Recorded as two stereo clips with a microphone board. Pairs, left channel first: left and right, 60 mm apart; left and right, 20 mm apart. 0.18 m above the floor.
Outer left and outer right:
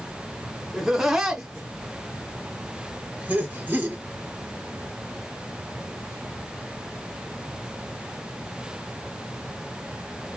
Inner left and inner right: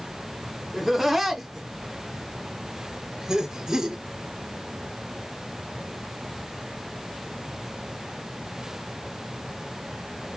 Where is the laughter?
5° right (ahead or behind), 2.5 m; by 4.0 s 35° right (ahead or behind), 2.0 m.